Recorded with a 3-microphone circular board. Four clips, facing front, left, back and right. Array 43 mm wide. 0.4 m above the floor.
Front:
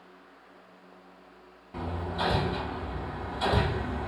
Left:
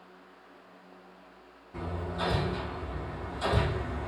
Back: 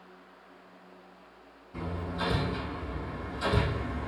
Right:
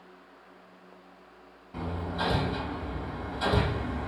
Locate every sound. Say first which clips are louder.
1.7 s hammering: right 2 dB, front 2 dB; 30° right, 3 m